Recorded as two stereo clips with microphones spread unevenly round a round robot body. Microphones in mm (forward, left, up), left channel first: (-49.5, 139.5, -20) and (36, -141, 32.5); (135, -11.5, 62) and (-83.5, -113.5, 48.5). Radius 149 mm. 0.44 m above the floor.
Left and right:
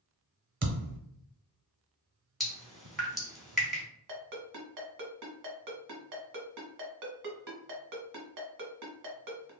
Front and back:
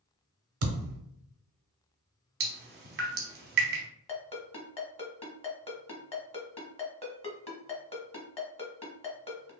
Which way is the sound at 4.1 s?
40° right.